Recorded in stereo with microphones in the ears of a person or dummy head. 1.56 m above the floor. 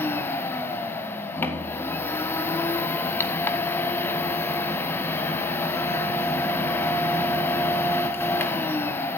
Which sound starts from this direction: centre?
A machine running, at 0.0 s.